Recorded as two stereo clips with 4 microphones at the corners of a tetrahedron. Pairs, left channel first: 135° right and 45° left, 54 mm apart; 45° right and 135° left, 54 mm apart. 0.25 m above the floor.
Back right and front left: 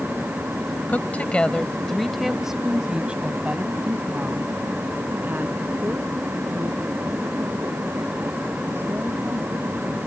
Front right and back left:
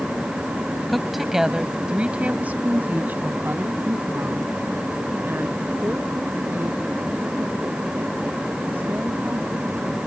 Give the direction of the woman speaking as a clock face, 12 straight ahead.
4 o'clock.